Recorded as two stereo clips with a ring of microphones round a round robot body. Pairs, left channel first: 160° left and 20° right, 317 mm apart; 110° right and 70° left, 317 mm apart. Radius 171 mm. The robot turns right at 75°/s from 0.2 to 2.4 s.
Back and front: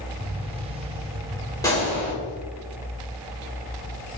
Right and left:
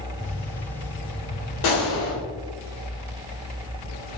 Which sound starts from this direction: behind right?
A gunshot, at 1.6 s.